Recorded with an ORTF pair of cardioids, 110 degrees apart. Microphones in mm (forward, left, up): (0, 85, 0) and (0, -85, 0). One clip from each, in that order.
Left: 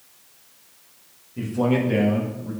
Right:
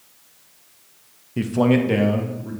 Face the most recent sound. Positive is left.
turn(degrees=-30)